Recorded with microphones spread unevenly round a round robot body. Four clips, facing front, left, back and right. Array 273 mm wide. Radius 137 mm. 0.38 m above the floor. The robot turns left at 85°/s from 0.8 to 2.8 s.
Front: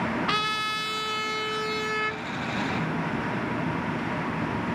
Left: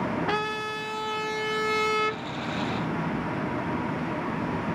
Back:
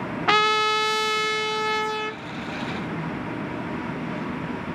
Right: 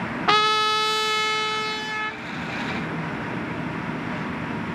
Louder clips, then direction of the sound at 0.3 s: Right 8 dB, back 8 dB; 120° right.